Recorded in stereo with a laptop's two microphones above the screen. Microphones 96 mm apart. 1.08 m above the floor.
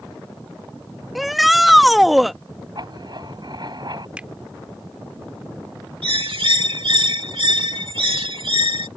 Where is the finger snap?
15° right (ahead or behind).